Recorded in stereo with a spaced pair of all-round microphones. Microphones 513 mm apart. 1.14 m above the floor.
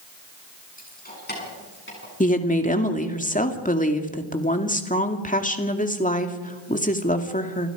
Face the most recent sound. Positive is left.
turn(degrees=15)  # may be behind; listen again after turning